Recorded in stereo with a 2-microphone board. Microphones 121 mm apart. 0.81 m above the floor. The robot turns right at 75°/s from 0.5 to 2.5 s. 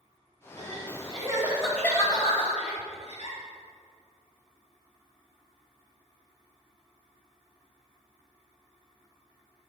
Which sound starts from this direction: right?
Crying, at 0.6 s.